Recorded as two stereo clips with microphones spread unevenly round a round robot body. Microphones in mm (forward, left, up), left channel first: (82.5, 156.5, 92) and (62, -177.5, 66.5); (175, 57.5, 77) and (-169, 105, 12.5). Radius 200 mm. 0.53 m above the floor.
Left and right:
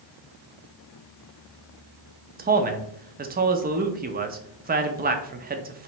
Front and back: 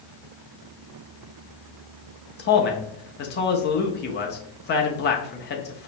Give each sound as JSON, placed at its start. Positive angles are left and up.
{"t": 2.4, "sound": "a man speaking", "azimuth_deg": -65, "distance_m": 0.7}